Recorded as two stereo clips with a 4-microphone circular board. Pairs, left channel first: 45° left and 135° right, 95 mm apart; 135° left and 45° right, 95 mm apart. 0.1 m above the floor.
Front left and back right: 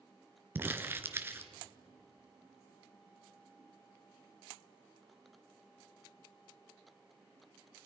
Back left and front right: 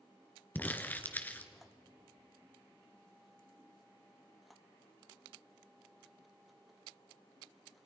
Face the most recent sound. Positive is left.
turn(degrees=-175)